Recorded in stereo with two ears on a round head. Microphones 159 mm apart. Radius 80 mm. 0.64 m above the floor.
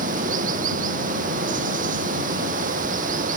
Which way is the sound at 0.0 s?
50° right (ahead or behind).